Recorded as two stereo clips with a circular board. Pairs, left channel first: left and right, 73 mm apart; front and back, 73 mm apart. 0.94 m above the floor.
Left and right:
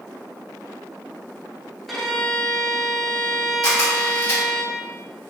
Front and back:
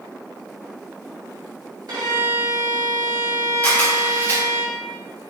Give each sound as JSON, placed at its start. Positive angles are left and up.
{"t": 1.9, "sound": "a violin", "azimuth_deg": 180, "distance_m": 1.2}
{"t": 3.6, "sound": "a camera shutter", "azimuth_deg": 65, "distance_m": 1.8}